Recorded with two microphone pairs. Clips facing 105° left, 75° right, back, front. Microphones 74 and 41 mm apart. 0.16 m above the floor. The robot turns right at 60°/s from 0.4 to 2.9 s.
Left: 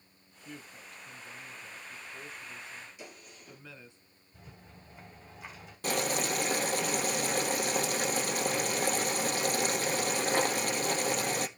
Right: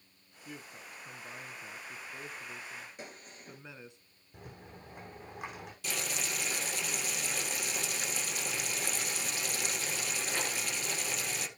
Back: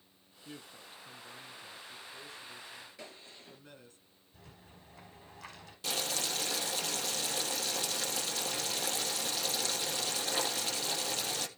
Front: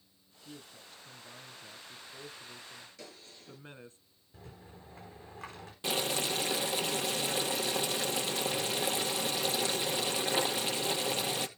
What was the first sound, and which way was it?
A woman speaking, 165° right.